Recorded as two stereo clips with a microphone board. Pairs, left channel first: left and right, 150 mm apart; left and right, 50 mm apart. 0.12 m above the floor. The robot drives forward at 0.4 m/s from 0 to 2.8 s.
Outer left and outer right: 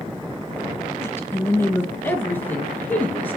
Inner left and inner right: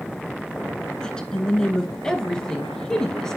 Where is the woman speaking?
15° left (ahead or behind), 1.1 m.